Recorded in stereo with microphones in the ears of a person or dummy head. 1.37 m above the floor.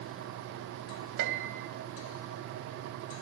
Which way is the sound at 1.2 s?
60° right (ahead or behind).